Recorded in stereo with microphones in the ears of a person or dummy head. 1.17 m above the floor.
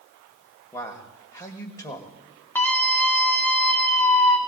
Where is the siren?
I don't hear a siren.